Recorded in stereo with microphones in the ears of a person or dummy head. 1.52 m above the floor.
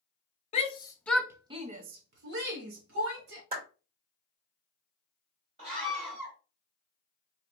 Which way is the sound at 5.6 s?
35° right (ahead or behind).